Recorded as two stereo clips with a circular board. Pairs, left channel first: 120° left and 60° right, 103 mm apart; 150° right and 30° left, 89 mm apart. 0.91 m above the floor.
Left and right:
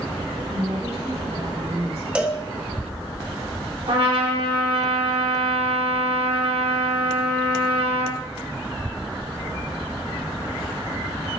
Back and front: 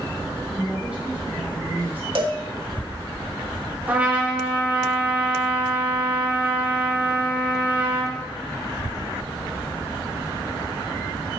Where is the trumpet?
40° right, 2.5 m.